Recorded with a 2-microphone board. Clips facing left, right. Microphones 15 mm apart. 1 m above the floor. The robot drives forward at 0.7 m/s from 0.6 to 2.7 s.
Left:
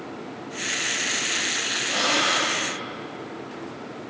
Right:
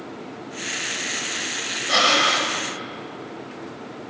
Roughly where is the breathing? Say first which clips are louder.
Right 6 dB; right.